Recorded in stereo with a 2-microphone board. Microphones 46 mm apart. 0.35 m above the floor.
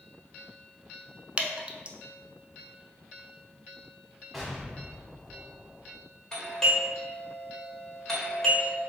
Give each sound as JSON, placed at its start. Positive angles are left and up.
{"t": 1.4, "sound": "dripping", "side_deg": -25, "distance_m": 0.5}
{"t": 4.3, "sound": "an explosion", "side_deg": 0, "distance_m": 1.2}
{"t": 6.3, "sound": "a doorbell", "side_deg": 15, "distance_m": 1.4}